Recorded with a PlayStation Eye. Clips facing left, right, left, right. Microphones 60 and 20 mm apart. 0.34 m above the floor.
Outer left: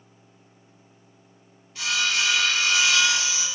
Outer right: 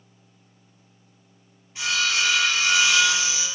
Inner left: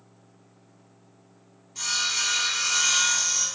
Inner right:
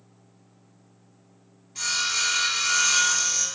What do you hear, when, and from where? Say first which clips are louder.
1.8 s sawing: outer right 1 dB, inner right 1 dB; 15° right (ahead or behind), 1.7 m